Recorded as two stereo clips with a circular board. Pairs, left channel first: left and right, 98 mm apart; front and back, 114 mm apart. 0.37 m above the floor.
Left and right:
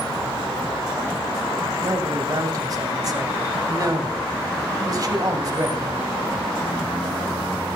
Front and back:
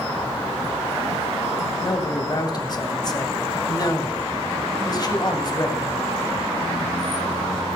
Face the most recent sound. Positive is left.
turn(degrees=-45)